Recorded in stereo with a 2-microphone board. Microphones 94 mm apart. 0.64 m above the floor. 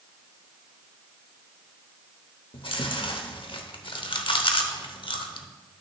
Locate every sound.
2.5 s chewing: 65° left (ahead or behind), 0.7 m